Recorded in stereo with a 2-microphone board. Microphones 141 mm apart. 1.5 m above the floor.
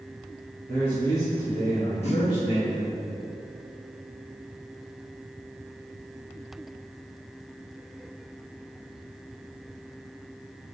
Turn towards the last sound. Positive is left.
turn(degrees=50)  # may be behind; listen again after turning